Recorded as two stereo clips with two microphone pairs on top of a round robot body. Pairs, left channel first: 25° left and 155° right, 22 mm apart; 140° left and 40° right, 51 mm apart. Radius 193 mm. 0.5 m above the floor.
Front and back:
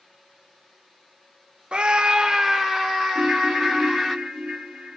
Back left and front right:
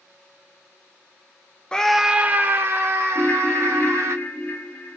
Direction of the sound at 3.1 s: 165° right.